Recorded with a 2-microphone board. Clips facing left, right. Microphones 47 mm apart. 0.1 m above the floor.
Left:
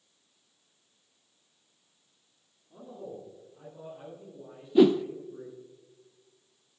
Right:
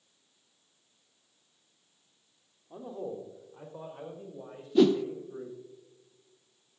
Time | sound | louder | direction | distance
2.7 | a man speaking | right 4 dB | 70° right (ahead or behind) | 3.5 m
4.8 | a whoosh | left 2 dB | 15° left (ahead or behind) | 0.5 m